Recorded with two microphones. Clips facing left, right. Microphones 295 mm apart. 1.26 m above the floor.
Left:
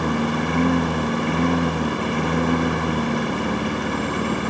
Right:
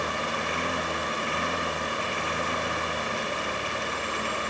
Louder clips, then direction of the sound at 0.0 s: Left 11 dB; 70° left (ahead or behind).